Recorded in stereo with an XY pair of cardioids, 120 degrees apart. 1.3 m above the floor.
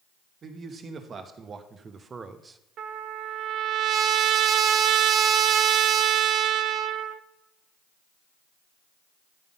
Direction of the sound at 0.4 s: 45° right.